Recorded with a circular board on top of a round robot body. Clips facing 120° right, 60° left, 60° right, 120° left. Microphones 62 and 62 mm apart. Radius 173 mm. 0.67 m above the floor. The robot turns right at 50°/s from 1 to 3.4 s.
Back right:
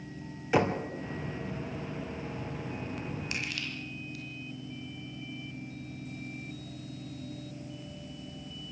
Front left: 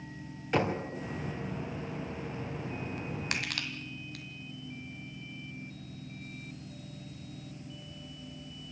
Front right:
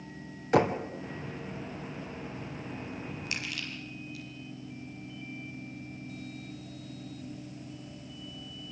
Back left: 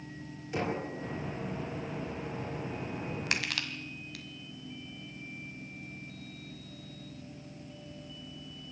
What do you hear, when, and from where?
0.5 s knocking: 35° right, 3 m
3.3 s crushing: 85° left, 1.5 m; by 4.2 s 90° left, 1.5 m